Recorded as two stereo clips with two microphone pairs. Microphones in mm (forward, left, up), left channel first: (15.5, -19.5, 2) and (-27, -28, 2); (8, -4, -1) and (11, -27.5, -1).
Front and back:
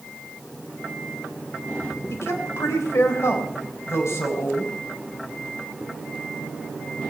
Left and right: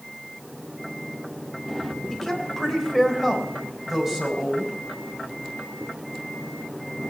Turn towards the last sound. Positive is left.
turn(degrees=-10)